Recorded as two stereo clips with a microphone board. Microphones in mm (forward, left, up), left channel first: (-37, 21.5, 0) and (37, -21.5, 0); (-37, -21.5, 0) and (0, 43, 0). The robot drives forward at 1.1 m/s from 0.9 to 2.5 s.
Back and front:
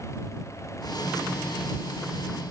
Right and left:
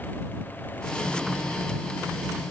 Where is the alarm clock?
No alarm clock in this recording.